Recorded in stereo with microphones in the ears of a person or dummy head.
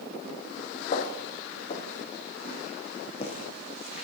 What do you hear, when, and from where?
0.9 s footsteps: 45° left (ahead or behind), 2.5 m; by 4.0 s 30° left (ahead or behind), 3.5 m